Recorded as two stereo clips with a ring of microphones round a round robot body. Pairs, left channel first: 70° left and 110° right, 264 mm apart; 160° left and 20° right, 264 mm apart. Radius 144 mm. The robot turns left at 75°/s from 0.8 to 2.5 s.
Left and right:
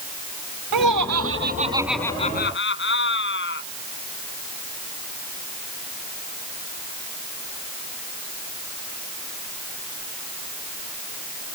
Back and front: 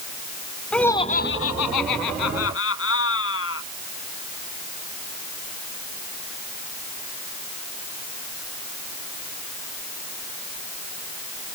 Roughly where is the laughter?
Behind right.